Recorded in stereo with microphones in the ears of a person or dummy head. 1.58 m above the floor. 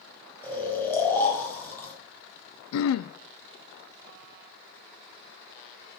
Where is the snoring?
10° left (ahead or behind), 4 m.